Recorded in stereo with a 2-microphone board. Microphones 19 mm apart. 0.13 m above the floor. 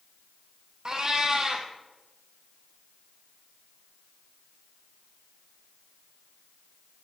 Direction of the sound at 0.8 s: 35° right (ahead or behind).